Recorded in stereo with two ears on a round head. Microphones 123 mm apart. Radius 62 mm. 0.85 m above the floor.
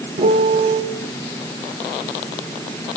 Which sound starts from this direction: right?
A piano, at 0.2 s.